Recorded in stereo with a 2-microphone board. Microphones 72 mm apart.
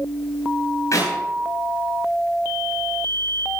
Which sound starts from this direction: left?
A clap, at 0.9 s.